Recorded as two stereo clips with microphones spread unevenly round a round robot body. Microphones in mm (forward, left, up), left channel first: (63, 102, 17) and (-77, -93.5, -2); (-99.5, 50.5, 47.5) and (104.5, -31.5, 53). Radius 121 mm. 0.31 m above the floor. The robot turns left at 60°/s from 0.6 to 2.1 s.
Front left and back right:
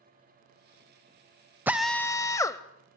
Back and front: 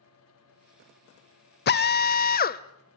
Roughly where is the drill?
Behind.